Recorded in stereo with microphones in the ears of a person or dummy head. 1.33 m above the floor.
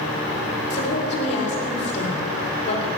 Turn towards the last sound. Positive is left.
turn(degrees=35)  # may be behind; listen again after turning